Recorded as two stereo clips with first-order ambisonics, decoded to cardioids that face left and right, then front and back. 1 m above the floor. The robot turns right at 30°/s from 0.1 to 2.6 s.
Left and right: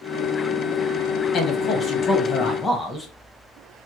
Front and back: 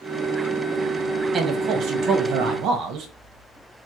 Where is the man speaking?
125° left, 1.0 m; by 3.1 s 165° left, 1.0 m.